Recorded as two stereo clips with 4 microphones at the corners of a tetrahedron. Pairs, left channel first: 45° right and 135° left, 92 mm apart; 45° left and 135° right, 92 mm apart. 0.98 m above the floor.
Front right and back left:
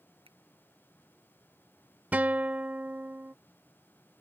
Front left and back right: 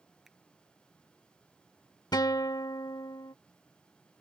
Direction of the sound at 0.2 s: 140° left.